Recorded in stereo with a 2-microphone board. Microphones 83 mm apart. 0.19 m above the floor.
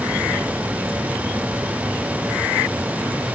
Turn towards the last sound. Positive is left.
No sound to turn to.